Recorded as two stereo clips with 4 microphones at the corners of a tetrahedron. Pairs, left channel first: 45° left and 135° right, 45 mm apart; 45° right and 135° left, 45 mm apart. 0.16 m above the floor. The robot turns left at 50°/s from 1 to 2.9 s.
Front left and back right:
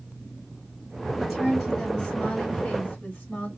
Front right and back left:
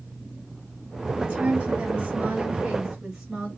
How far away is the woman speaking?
About 1.7 m.